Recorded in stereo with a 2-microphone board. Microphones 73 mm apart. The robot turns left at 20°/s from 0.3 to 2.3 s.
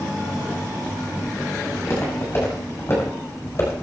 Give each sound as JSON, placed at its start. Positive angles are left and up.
{"t": 1.7, "sound": "footsteps", "side_deg": 45, "distance_m": 7.5}